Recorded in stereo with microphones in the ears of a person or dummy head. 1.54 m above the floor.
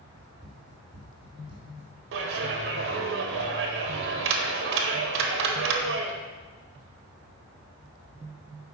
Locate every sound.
0.2 s running footsteps: 30° right (ahead or behind), 1.9 m; by 1.9 s 5° right (ahead or behind), 1.6 m
2.1 s a clap: 70° right (ahead or behind), 1.0 m